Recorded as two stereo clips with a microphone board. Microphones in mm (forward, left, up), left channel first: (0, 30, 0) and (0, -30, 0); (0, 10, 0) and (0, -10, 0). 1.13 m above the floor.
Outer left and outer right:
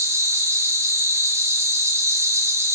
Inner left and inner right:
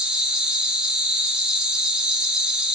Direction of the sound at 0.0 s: 45° right (ahead or behind).